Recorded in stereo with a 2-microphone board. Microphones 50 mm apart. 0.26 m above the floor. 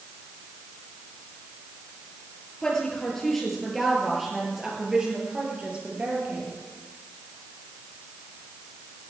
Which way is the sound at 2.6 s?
15° left (ahead or behind).